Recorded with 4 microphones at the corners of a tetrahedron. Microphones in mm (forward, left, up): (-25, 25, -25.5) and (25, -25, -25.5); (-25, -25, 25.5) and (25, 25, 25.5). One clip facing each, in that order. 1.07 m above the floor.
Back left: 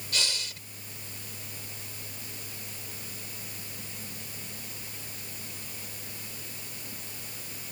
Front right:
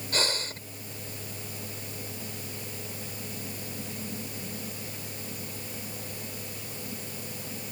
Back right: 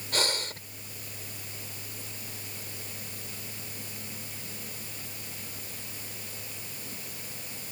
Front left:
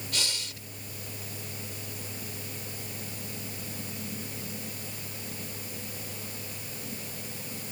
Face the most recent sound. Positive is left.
turn(degrees=-90)